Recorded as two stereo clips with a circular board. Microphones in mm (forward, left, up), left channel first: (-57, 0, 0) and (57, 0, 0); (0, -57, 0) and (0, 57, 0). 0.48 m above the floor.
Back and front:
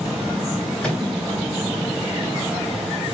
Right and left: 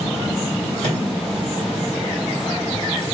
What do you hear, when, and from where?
0.8 s a microwave: 100° left, 2.5 m